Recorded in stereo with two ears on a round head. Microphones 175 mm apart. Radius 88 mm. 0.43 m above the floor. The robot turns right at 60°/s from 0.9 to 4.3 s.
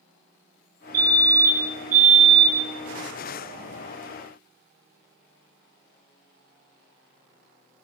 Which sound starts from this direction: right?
A fire alarm, at 0.9 s.